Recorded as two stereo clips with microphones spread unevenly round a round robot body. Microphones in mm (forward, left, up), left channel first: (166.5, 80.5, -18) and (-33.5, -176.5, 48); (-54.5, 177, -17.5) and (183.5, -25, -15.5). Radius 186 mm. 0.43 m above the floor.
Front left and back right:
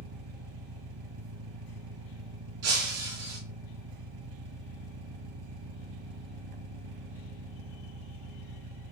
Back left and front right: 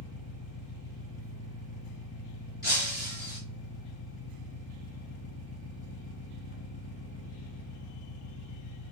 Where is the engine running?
160° right, 0.8 m.